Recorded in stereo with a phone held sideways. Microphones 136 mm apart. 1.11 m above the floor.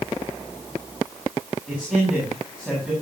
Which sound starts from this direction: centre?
A man speaking, at 1.7 s.